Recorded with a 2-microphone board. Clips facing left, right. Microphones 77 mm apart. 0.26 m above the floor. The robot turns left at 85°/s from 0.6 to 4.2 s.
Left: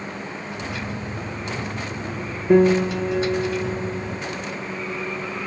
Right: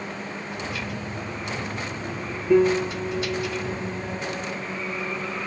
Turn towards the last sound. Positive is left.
turn(degrees=-20)